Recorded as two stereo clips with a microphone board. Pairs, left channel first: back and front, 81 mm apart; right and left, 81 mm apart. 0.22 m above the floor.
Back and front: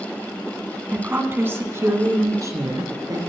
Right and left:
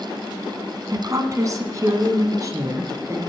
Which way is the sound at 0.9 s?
65° left.